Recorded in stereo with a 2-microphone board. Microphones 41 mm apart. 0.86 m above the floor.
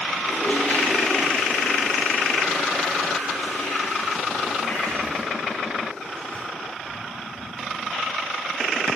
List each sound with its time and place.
0.2 s a toilet flushing: 40° left (ahead or behind), 5 m